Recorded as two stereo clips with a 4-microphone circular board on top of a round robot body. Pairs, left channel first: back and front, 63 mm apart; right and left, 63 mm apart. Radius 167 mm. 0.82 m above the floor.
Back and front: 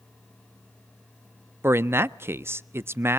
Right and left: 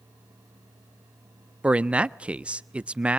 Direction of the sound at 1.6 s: 30° left.